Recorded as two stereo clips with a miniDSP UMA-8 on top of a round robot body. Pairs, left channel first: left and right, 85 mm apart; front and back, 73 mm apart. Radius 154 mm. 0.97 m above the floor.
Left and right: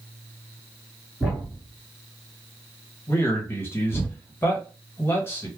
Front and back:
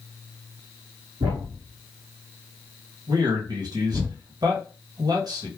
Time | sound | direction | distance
1.2 | a thud | 170° right | 1.3 m
3.1 | a man speaking | 150° left | 1.3 m